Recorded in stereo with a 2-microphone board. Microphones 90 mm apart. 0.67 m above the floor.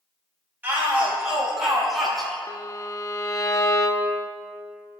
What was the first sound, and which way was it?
A shout, 15° right (ahead or behind).